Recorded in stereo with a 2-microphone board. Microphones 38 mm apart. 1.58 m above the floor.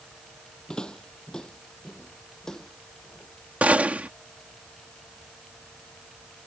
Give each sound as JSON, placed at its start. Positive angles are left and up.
{"t": 0.7, "sound": "footsteps", "side_deg": 20}
{"t": 3.6, "sound": "a gunshot", "side_deg": -40}